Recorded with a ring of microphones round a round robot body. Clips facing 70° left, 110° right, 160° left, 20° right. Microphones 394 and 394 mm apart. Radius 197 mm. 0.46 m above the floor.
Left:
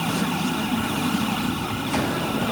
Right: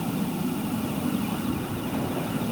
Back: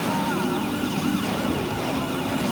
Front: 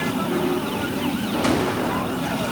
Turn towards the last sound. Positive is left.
No sound to turn to.